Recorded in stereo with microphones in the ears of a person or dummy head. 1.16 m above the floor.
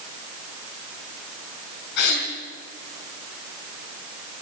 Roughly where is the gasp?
Left.